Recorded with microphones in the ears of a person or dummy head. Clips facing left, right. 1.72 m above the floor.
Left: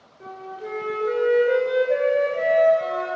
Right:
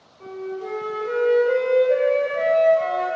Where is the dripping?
I don't hear dripping.